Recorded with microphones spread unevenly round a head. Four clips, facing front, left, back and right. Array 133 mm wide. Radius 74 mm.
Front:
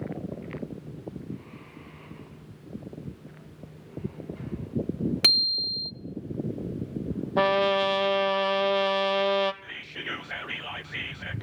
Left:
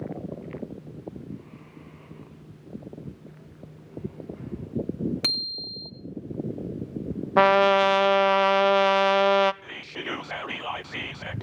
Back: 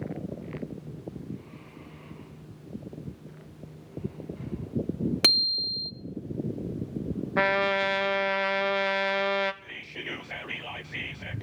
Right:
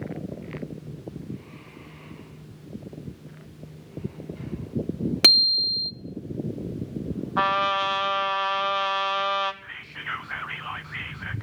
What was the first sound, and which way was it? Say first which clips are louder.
A bicycle bell: right 8 dB, back 2 dB; 85° right.